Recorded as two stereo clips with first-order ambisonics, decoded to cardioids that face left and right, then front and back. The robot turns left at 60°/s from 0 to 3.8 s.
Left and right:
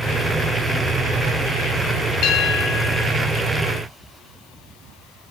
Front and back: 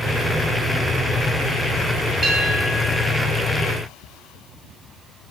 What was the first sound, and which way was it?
A bell, 120° left.